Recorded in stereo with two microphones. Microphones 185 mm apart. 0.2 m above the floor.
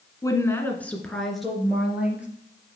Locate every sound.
0.2 s a woman speaking: 20° left (ahead or behind), 1.7 m; by 2.3 s 5° right (ahead or behind), 3.5 m